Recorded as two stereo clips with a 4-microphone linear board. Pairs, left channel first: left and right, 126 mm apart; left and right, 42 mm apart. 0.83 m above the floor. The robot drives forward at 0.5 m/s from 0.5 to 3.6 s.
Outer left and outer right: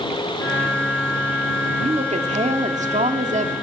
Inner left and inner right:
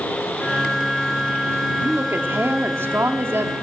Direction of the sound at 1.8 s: 60° right (ahead or behind).